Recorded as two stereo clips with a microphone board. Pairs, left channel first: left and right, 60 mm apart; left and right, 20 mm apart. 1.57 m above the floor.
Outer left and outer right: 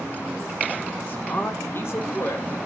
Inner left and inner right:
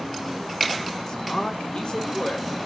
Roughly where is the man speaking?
Left.